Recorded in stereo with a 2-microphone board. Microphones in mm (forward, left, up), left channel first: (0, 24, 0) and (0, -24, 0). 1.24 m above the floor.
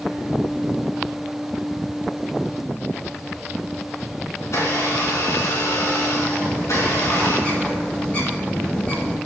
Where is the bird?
30° left (ahead or behind), 6.5 m.